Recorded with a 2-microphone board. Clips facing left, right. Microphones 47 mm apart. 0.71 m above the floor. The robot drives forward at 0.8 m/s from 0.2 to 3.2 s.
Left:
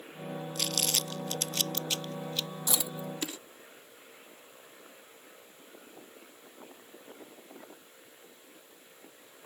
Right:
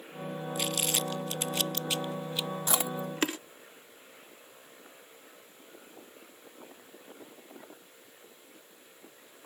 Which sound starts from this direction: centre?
Crumpling, at 0.6 s.